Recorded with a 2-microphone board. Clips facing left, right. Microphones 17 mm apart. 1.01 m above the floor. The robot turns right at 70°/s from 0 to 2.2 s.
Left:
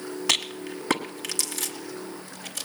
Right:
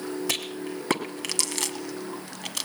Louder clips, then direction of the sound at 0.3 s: Left 4 dB; 35° left (ahead or behind).